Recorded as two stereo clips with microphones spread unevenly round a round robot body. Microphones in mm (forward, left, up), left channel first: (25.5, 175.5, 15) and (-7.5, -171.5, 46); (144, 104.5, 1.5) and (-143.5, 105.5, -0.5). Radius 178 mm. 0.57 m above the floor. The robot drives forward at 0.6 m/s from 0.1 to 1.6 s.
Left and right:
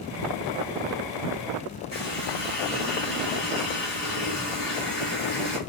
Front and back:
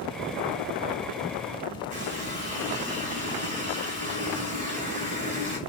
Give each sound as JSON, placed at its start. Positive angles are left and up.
{"t": 1.9, "sound": "a running tap", "azimuth_deg": 115, "distance_m": 3.5}